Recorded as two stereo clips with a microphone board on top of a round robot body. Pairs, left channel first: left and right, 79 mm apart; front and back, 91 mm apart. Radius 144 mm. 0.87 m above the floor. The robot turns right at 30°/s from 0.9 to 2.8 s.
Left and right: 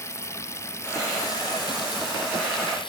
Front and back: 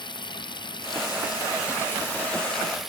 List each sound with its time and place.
0.0 s running water: 35° left; by 2.9 s 90° left